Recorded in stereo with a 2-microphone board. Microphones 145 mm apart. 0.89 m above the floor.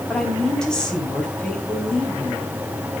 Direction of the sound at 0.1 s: 5° left (ahead or behind).